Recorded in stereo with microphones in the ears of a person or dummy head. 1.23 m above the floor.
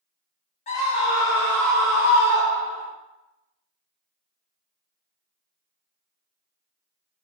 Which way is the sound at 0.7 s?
35° left (ahead or behind).